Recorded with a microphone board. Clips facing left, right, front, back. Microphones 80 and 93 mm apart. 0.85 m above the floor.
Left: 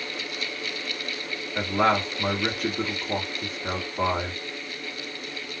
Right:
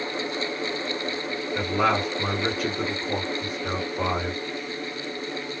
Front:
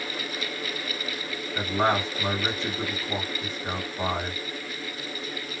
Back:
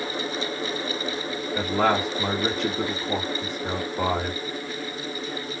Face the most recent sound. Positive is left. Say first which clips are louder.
# left 1 dB, back 2 dB
turn(degrees=170)